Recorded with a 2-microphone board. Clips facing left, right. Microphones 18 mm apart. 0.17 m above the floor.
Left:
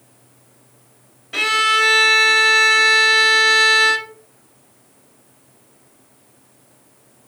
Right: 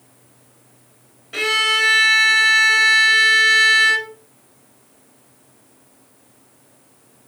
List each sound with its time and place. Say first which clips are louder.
1.3 s a violin: left 2 dB; 10° left (ahead or behind), 0.9 m